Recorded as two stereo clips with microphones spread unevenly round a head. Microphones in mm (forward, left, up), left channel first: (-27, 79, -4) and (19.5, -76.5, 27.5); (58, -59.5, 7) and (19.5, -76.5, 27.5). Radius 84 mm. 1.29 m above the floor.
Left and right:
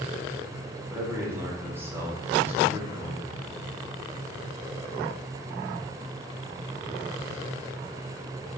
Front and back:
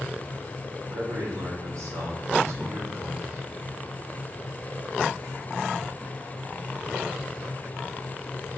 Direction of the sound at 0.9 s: 155° right.